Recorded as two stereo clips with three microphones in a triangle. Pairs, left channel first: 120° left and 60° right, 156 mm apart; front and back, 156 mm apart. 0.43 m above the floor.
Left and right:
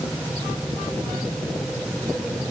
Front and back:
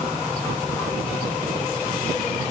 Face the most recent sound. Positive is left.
No sound to turn to.